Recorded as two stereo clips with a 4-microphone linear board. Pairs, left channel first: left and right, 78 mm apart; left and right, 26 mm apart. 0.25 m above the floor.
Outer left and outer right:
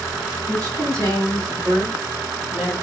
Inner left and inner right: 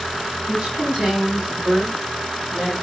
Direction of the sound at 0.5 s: 45° right (ahead or behind).